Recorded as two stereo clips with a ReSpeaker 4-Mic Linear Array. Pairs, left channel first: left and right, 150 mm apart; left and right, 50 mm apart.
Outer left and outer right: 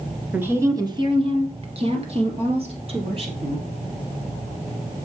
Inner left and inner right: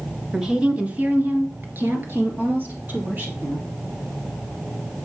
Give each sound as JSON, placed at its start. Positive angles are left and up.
{"t": 0.3, "sound": "a woman speaking", "side_deg": -10, "distance_m": 1.5}